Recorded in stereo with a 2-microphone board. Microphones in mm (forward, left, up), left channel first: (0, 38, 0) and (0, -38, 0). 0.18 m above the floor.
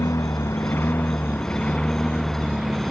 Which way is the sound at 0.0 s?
45° left (ahead or behind).